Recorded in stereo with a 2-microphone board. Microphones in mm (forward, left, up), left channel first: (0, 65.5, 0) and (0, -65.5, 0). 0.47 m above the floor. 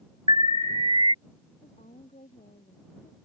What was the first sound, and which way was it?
An alarm, 40° right (ahead or behind).